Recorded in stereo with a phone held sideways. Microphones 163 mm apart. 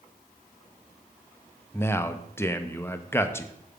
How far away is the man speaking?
About 0.5 m.